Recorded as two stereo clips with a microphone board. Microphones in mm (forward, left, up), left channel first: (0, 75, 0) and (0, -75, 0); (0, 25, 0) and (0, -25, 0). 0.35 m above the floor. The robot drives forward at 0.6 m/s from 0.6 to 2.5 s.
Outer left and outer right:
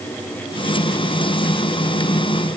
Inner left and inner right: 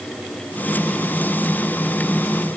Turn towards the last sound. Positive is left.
No sound to turn to.